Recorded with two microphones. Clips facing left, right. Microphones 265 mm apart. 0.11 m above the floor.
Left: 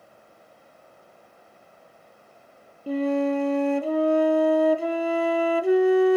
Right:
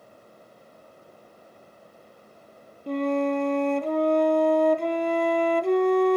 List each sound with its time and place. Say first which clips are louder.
2.9 s a flute: left 1 dB; 5° left (ahead or behind), 0.6 m